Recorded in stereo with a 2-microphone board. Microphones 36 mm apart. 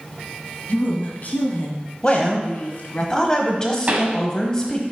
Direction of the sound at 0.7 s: 50° left (ahead or behind).